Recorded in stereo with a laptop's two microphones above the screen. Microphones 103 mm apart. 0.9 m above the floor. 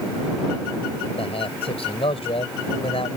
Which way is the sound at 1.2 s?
70° left (ahead or behind).